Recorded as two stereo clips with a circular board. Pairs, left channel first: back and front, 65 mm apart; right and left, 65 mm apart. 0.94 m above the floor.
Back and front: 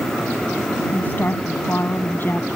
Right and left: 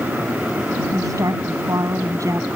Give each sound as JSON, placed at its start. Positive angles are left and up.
{"t": 0.9, "sound": "a woman speaking", "azimuth_deg": 120}